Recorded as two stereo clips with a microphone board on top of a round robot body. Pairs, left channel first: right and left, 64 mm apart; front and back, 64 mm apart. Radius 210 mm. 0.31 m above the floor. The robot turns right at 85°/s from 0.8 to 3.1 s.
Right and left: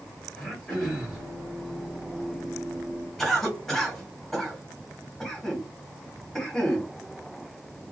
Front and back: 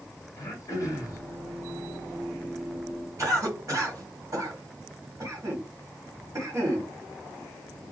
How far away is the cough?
About 2 m.